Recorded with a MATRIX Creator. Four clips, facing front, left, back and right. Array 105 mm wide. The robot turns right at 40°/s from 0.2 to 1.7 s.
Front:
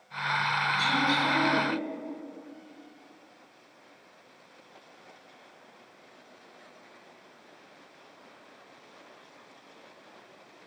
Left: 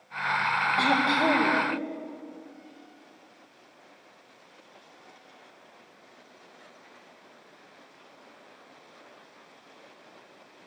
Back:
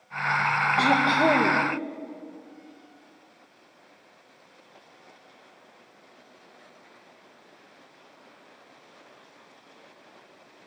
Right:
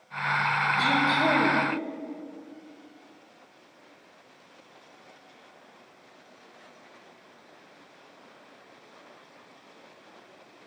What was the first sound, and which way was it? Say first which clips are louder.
Throat clearing: left 1 dB, back 8 dB; 155° left.